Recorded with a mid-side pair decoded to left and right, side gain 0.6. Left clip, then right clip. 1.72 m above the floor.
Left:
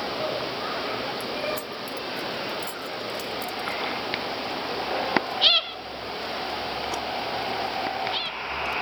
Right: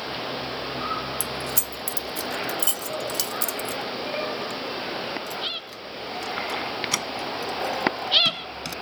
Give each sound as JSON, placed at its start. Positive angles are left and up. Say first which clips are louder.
{"t": 1.2, "sound": "keys jangling", "louder": "left 1 dB", "azimuth_deg": -70}